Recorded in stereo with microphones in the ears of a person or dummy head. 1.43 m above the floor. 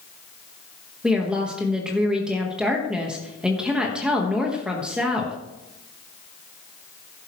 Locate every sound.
1.0 s a woman speaking: 5° right (ahead or behind), 1.5 m